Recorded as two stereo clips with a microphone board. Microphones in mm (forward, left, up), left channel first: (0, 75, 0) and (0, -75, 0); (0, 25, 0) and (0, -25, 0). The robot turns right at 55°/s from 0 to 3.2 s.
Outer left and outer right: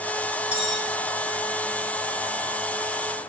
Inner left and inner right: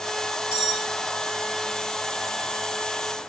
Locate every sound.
0.5 s cutlery clinking: 10° right (ahead or behind), 4 m; by 0.9 s 15° left (ahead or behind), 4 m